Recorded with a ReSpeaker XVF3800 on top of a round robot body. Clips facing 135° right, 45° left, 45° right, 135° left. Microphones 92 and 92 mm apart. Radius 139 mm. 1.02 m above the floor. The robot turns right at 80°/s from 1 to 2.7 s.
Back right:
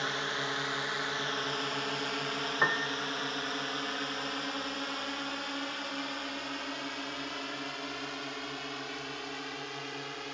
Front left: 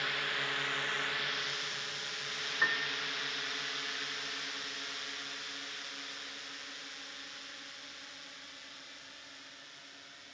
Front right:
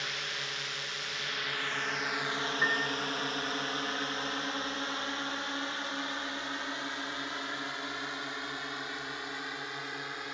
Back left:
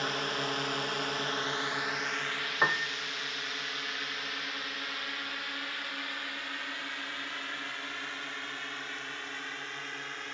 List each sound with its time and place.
0.0 s a drone: 170° left; by 10.3 s 120° right
2.6 s a piano: straight behind; by 3.0 s 175° right